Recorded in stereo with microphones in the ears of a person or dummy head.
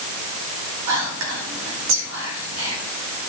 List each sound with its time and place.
0.9 s whispering: 80° right, 2.5 m